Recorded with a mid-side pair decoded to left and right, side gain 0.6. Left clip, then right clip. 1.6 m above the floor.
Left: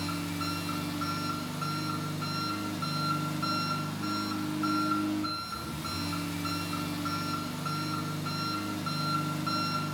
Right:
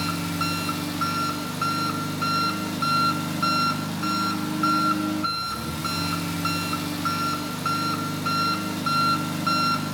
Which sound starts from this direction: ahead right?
An engine running, at 0.0 s.